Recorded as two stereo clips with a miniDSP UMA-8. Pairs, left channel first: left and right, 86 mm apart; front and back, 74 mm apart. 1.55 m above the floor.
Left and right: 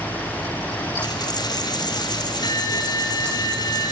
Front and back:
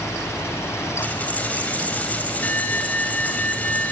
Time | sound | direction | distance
1.0 | a dropped coin | 70° left | 2.5 m